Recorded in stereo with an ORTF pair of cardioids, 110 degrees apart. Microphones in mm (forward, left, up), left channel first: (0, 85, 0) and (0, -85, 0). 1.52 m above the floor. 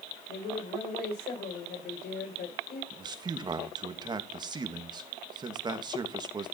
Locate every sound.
0.3 s a woman speaking: 70° left, 7 m
2.9 s a man speaking: 25° right, 2.5 m